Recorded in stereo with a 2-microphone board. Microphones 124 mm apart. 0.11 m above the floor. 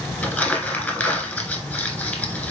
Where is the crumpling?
10° left (ahead or behind), 1.3 m.